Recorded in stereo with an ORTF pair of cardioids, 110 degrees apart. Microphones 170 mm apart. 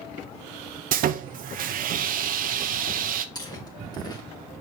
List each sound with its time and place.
0.9 s sawing: 55° right, 0.9 m
3.4 s chewing: 25° left, 2.5 m